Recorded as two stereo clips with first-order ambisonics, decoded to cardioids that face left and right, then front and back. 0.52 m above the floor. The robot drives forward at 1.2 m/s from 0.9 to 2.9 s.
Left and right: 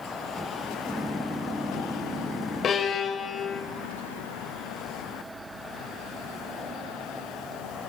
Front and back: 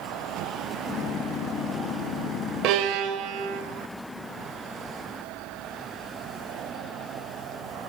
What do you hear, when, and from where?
2.6 s a violin: 150° left, 0.8 m; by 3.6 s 160° left, 1.1 m